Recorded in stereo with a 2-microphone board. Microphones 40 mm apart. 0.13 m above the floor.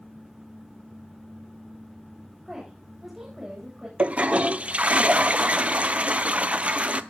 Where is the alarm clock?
No alarm clock in this recording.